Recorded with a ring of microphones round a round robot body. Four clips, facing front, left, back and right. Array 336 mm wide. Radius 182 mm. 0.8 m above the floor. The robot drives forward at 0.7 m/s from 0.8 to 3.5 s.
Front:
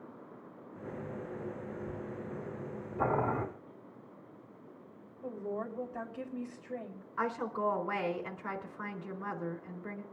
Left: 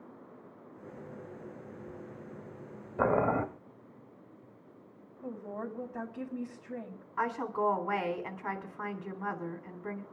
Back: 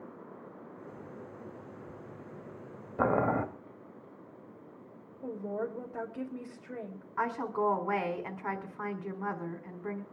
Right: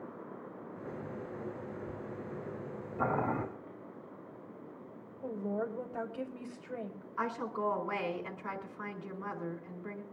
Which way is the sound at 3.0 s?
135° left.